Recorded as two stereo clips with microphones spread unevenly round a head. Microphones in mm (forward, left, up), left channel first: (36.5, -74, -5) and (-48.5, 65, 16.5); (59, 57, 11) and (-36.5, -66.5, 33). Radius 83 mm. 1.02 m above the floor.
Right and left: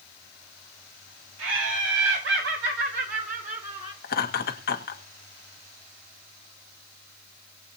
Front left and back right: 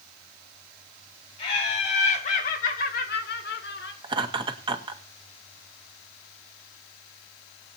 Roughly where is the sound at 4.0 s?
Right.